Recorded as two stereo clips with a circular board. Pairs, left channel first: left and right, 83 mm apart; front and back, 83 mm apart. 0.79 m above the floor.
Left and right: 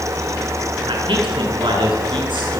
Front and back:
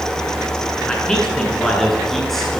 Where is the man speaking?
80° right, 7.5 m; by 2.6 s 90° right, 9 m.